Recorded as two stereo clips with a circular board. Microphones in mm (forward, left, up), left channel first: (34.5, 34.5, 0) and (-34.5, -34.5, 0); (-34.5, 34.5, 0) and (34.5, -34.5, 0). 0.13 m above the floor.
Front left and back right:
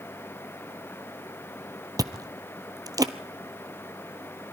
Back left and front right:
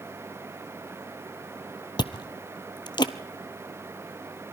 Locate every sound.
2.0 s chewing: 175° left, 0.7 m